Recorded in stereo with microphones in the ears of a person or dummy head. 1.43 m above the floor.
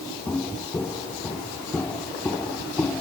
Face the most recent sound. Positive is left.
turn(degrees=10)  # may be behind; listen again after turning